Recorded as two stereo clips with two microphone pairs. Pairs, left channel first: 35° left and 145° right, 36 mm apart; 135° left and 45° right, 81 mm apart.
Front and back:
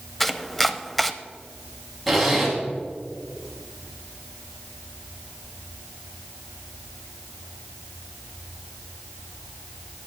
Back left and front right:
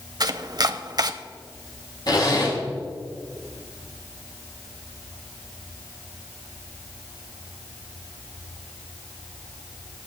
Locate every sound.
0.2 s chopping: 50° right, 0.6 m
2.1 s a zipper: 120° left, 3 m